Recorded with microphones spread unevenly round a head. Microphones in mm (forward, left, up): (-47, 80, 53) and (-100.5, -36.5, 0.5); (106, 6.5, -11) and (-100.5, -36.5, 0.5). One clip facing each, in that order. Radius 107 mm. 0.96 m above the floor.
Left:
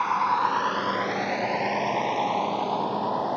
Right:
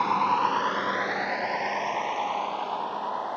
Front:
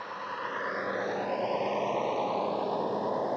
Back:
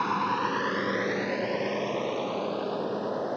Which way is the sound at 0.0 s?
170° right.